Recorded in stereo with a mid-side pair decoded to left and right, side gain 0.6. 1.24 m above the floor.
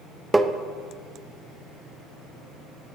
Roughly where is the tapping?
Ahead.